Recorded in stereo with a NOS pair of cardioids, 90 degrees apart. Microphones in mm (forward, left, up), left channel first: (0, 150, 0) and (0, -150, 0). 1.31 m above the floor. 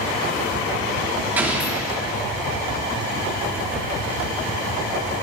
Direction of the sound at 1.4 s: 5° right.